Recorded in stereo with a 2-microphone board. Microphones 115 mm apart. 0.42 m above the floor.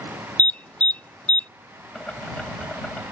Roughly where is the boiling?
Centre.